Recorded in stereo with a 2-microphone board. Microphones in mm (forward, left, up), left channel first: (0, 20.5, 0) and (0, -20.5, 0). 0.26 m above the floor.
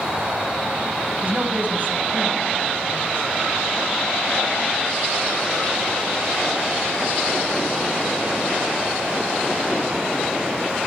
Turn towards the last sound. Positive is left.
turn(degrees=-60)  # may be behind; listen again after turning